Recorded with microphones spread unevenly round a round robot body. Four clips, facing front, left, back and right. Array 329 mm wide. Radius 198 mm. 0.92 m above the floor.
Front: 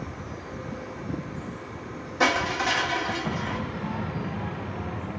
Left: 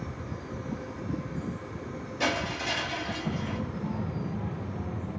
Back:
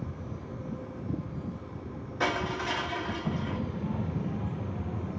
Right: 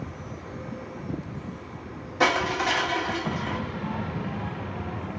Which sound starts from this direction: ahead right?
Crushing, at 2.2 s.